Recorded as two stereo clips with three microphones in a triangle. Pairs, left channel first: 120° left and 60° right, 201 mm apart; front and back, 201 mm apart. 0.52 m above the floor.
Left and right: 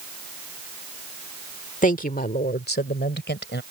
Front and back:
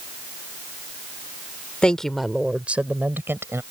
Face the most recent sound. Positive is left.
turn(degrees=105)